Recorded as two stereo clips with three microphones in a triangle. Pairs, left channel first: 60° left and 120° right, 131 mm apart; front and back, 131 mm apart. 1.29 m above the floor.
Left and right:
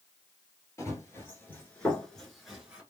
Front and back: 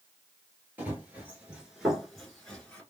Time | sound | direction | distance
0.8 | running footsteps | 115° left | 1.6 m